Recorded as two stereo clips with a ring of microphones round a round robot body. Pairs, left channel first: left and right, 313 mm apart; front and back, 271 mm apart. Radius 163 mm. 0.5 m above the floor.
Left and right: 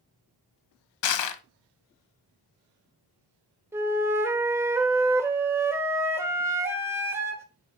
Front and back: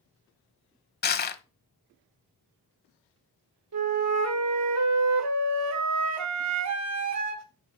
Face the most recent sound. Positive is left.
turn(degrees=-170)